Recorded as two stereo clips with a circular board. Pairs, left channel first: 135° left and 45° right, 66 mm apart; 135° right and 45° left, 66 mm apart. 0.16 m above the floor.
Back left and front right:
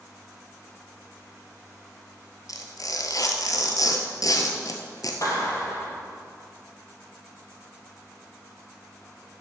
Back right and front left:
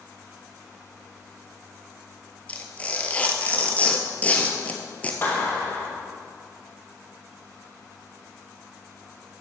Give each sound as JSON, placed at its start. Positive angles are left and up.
{"t": 2.5, "sound": "tearing paper", "azimuth_deg": 155, "distance_m": 1.2}
{"t": 5.2, "sound": "a clap", "azimuth_deg": 165, "distance_m": 3.0}